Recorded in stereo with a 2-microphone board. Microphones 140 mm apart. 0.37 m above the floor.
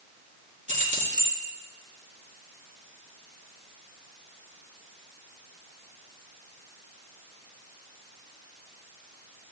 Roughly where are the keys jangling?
Right.